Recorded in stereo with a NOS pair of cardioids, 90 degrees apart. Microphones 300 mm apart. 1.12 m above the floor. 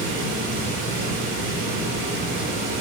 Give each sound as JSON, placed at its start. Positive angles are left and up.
{"t": 0.0, "sound": "running water", "azimuth_deg": -55, "distance_m": 3.0}